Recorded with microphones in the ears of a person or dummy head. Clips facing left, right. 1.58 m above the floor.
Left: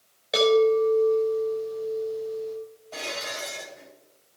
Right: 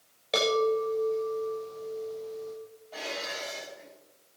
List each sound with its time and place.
0.3 s a chime: 10° left (ahead or behind), 6.5 m
2.9 s dishes clattering: 60° left (ahead or behind), 5 m